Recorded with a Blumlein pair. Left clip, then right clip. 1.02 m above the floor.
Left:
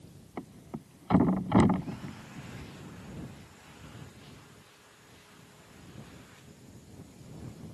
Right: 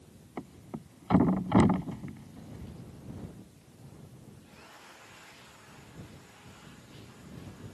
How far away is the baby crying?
No baby crying in this recording.